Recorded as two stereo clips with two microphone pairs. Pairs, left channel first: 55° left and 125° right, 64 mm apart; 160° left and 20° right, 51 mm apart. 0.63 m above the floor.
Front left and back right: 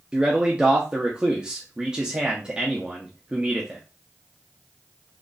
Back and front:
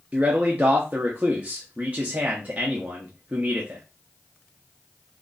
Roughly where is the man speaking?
Ahead right.